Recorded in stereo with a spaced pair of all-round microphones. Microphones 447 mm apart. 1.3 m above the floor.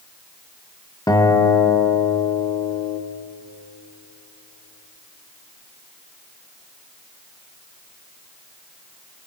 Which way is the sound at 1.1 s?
10° left (ahead or behind).